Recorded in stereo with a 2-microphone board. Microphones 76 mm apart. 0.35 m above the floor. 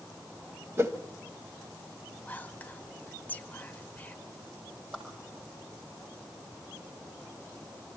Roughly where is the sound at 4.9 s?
Centre.